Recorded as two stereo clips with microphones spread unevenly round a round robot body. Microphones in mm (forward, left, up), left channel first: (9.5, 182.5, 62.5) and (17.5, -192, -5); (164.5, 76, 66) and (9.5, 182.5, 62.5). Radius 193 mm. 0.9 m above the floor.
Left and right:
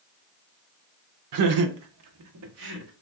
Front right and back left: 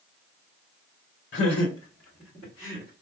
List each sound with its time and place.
1.3 s laughter: 75° right, 0.6 m; by 2.9 s 140° right, 1.6 m